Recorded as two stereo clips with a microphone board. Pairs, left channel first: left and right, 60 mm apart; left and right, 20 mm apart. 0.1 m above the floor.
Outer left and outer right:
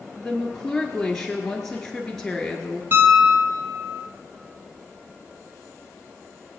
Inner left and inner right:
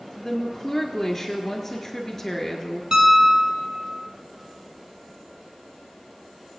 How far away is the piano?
About 2.0 m.